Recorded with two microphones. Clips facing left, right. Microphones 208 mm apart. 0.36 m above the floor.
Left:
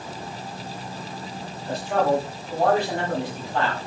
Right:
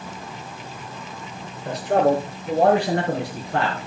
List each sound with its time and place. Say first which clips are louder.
1.6 s a man speaking: right 4 dB; 75° right (ahead or behind), 5.5 m; by 3.8 s 80° right, 4.5 m